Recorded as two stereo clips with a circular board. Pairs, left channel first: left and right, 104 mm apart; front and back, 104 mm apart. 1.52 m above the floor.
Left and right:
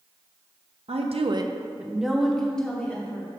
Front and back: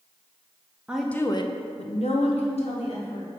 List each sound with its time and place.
0.9 s a woman speaking: 100° right, 0.6 m; by 3.3 s 15° left, 2 m